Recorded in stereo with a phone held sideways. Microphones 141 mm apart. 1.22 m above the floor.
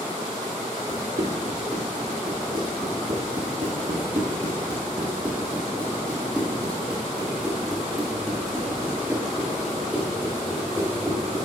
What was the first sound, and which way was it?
Running footsteps, 65° right (ahead or behind).